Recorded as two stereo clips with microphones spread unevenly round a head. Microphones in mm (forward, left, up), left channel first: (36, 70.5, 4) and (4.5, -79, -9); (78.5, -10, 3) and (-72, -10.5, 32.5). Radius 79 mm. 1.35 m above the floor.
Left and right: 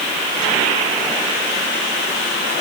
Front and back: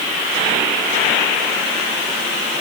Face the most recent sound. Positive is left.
No sound to turn to.